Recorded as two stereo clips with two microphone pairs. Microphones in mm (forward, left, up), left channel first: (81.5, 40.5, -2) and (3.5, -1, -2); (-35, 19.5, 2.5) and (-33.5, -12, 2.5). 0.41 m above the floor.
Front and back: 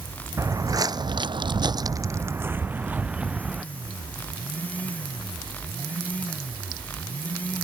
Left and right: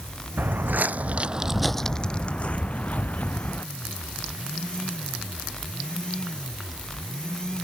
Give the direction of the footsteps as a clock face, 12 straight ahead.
3 o'clock.